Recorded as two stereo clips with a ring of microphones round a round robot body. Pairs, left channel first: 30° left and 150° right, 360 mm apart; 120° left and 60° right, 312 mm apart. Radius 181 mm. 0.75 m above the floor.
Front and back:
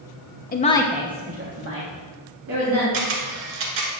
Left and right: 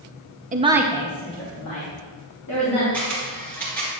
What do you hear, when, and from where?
0.5 s a woman speaking: 15° right, 0.9 m; by 2.8 s 160° left, 2.5 m
2.9 s a camera shutter: 155° right, 1.7 m